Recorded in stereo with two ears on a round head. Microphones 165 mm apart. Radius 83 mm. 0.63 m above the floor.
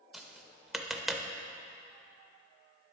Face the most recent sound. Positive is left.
turn(degrees=0)  # may be behind; listen again after turning